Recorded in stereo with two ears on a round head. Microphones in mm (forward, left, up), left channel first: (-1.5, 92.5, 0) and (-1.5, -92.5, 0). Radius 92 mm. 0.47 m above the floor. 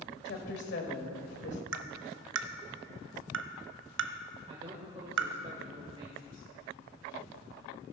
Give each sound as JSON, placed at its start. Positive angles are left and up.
{"t": 0.2, "sound": "a woman speaking", "side_deg": 60, "distance_m": 1.9}
{"t": 1.7, "sound": "tapping", "side_deg": -65, "distance_m": 0.6}
{"t": 4.5, "sound": "a man speaking", "side_deg": -30, "distance_m": 1.4}